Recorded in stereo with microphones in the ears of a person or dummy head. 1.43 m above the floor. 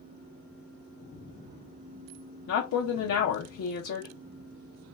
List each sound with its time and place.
2.5 s a woman speaking: 65° left (ahead or behind), 0.6 m